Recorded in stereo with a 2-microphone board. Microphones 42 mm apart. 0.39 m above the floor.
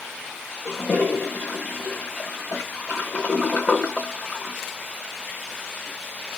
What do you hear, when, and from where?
0.7 s a toilet flushing: 40° left (ahead or behind), 0.8 m